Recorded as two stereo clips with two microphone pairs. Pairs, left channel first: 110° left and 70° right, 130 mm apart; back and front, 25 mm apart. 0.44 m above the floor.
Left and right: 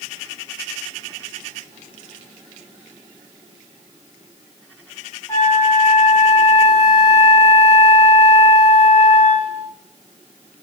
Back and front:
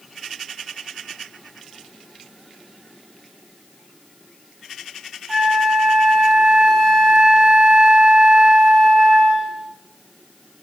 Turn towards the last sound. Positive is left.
turn(degrees=50)